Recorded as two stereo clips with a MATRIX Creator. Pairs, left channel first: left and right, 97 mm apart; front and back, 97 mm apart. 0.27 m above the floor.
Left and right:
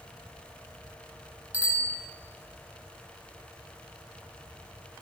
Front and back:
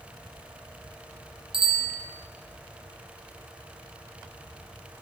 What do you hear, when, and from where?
1.5 s a bicycle bell: 165° right, 2.5 m